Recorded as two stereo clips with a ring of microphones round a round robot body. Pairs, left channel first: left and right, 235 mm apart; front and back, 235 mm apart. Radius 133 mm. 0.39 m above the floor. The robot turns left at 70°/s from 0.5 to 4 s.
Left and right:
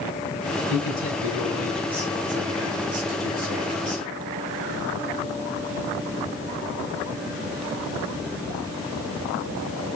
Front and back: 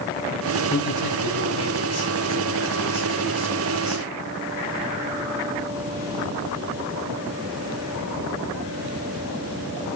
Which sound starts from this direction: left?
A man speaking, at 0.7 s.